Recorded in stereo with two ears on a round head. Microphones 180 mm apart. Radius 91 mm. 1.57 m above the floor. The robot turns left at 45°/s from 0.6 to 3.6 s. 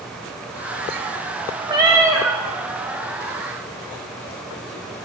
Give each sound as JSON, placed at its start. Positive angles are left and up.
{"t": 1.7, "sound": "a cat meowing", "azimuth_deg": -140, "distance_m": 1.1}